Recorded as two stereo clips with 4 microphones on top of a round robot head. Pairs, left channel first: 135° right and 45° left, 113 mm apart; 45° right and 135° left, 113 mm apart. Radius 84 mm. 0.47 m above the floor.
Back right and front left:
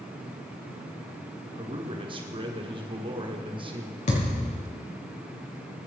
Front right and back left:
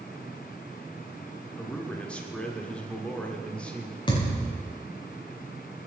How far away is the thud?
About 6 m.